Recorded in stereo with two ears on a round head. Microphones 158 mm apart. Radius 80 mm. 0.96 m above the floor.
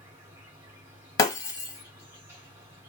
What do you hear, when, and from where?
0.0 s an insect: 15° right (ahead or behind), 1.4 m
1.2 s breaking glass: 20° left (ahead or behind), 0.9 m